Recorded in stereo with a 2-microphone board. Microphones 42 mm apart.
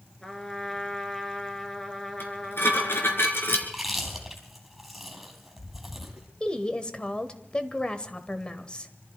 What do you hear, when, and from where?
0.2 s a trumpet: 15° left (ahead or behind), 2 m
2.2 s dishes clattering: 65° left (ahead or behind), 3.5 m
3.6 s chewing: centre (ahead or behind), 4 m
6.4 s a woman speaking: 25° left (ahead or behind), 1.4 m